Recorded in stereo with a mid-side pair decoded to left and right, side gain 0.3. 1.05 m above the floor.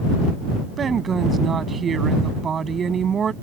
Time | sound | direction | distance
0.8 | a woman speaking | 60° right | ?